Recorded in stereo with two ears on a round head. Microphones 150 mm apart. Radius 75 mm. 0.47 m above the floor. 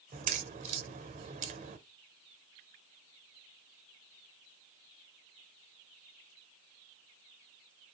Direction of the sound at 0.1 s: 45° right (ahead or behind).